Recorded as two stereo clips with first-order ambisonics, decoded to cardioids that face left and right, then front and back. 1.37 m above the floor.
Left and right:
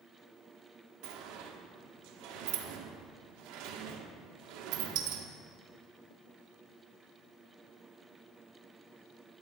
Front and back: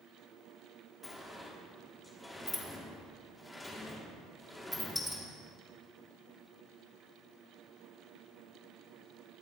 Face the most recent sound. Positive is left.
turn(degrees=-80)